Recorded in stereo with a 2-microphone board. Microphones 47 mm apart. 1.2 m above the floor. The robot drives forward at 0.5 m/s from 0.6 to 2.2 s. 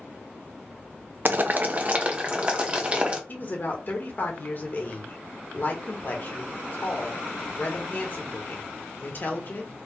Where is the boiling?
45° right (ahead or behind), 0.5 m; by 3.2 s 25° right (ahead or behind), 0.9 m.